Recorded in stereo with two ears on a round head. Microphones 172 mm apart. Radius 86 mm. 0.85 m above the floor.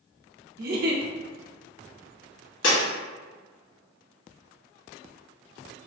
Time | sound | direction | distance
0.6 | a giggle | 50° right (ahead or behind) | 0.6 m
2.6 | breaking glass | 70° left (ahead or behind) | 1.9 m